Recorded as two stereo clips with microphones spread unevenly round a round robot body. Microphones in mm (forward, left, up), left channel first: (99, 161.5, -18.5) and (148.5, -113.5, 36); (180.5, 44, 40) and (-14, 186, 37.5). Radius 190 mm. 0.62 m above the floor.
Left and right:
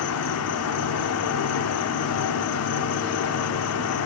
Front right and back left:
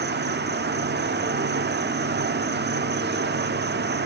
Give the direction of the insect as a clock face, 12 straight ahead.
9 o'clock.